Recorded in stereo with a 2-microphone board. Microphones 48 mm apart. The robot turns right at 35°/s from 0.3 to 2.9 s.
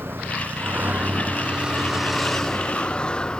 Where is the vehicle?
50° right (ahead or behind); by 3.4 s 20° left (ahead or behind).